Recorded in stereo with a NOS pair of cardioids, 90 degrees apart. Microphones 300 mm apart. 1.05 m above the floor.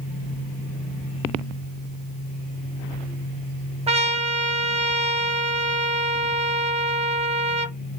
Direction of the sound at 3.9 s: 20° right.